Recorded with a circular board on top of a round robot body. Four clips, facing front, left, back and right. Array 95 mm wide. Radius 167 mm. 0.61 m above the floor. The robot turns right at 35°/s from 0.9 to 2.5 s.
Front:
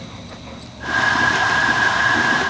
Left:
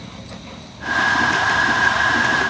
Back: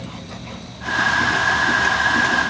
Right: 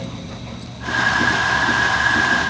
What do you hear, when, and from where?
Only background noise.